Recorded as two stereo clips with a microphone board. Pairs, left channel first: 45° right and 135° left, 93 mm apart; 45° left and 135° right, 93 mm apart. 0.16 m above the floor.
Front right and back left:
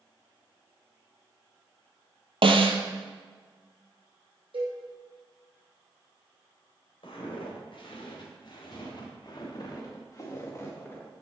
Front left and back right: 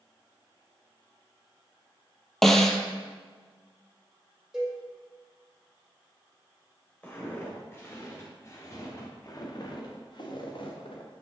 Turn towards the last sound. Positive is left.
turn(degrees=25)